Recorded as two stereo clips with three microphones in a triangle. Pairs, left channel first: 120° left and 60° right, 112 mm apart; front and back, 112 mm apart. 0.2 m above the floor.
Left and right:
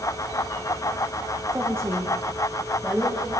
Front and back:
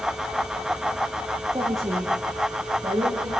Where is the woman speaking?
135° right, 8.5 m; by 3.3 s 155° right, 7.5 m.